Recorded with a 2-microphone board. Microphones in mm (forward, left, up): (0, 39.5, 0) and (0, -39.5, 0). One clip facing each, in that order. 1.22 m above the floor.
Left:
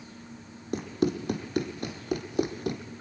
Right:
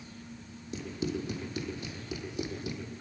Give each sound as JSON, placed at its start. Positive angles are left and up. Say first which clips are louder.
{"t": 0.7, "sound": "running footsteps", "louder": "left 7 dB", "side_deg": 55, "distance_m": 2.5}